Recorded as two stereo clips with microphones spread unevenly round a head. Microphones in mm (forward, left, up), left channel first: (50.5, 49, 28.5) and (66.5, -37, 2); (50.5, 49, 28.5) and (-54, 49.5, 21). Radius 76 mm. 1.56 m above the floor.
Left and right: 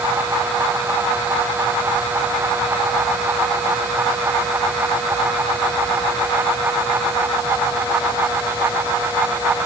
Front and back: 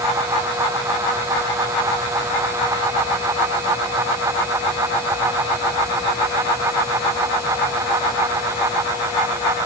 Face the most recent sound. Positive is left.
No sound to turn to.